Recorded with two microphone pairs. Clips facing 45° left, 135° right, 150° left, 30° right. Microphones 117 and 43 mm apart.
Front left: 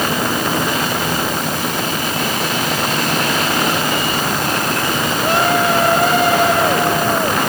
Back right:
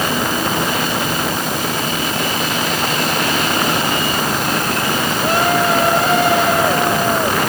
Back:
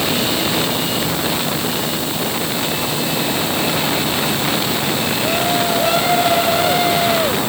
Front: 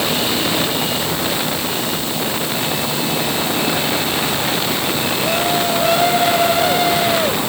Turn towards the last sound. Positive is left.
No sound to turn to.